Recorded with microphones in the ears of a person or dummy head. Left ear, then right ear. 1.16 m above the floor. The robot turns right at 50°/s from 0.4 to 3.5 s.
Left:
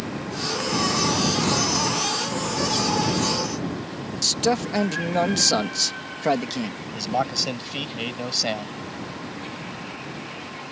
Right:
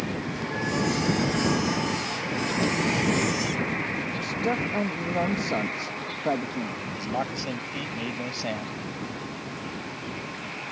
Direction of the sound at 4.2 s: 70° left (ahead or behind).